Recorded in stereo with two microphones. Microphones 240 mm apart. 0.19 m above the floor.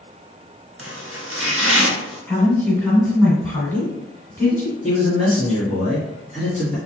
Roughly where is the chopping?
Right.